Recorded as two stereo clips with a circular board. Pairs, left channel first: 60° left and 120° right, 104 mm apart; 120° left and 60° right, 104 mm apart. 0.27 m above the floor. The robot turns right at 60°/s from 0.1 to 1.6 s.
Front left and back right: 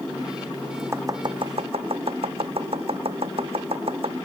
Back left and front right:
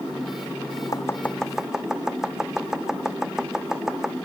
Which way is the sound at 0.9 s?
175° left.